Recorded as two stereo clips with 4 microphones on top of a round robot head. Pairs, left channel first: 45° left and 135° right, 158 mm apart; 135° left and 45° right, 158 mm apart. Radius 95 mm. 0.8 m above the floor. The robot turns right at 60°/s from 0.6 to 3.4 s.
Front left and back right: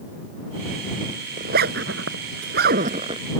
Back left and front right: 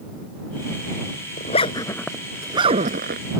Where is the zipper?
Straight behind; by 3.3 s 65° right.